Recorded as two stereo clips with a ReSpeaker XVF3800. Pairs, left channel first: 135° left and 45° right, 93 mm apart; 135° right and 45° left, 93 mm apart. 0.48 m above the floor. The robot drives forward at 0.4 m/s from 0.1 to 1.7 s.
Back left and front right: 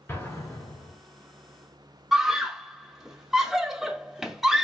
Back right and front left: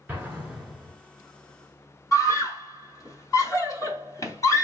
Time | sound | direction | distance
0.1 | an explosion | 100° left | 1.4 m
2.1 | a scream | 130° right | 0.8 m